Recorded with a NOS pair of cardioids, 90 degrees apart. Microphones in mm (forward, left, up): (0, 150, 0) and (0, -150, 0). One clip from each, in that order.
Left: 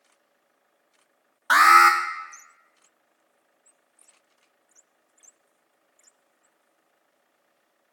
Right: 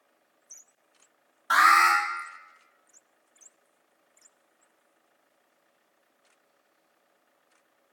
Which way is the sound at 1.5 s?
40° left.